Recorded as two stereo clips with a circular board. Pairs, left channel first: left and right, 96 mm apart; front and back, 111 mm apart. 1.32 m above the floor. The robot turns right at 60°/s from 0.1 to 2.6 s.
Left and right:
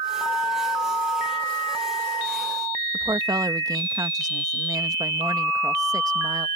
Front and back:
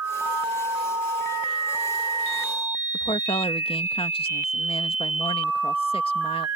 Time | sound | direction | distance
2.9 | a woman speaking | 35° right | ?